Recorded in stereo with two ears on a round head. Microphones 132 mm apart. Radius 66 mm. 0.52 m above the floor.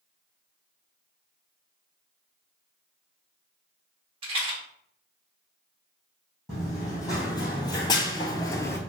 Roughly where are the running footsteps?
Left.